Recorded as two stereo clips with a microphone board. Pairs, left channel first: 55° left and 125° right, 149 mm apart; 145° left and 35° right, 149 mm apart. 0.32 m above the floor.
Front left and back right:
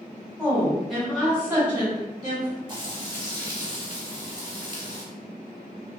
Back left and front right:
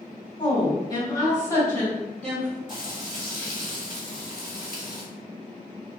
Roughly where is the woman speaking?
Behind left.